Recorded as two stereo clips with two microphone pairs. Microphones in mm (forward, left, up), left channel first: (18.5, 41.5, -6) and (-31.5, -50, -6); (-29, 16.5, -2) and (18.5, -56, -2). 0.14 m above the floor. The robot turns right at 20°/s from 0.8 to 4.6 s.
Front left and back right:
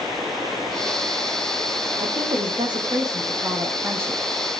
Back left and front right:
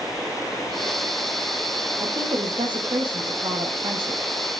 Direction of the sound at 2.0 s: 90° right.